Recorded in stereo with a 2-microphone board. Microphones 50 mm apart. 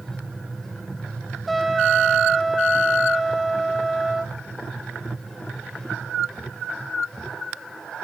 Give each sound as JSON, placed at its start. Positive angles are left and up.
{"t": 1.5, "sound": "a trumpet", "side_deg": 0, "distance_m": 0.8}